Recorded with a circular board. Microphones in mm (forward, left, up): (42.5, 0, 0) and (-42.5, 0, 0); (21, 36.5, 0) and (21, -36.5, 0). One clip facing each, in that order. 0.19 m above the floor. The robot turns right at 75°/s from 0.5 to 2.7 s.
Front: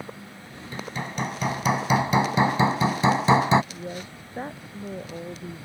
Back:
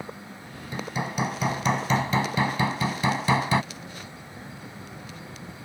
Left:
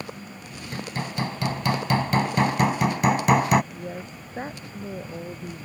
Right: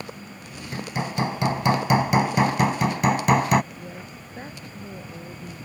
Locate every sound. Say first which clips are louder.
0.7 s hammering: back 2 dB, right 3 dB; 145° right; by 3.6 s 5° left
3.7 s a woman speaking: front 5 dB, left 3 dB; 30° left